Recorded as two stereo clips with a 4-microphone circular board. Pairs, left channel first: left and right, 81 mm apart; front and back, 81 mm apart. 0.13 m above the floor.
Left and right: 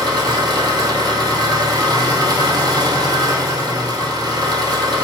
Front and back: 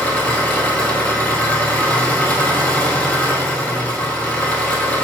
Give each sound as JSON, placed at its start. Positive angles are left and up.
{"t": 0.0, "sound": "an engine running", "azimuth_deg": -75, "distance_m": 1.1}